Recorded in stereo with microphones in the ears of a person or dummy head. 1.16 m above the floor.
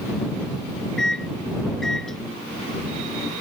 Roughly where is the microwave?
Centre.